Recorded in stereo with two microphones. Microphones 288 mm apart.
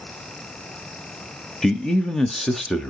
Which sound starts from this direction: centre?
A man speaking, at 1.6 s.